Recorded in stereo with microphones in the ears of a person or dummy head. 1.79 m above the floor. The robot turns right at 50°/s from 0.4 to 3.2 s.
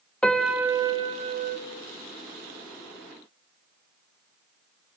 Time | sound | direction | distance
0.2 | a piano | 175° left | 0.8 m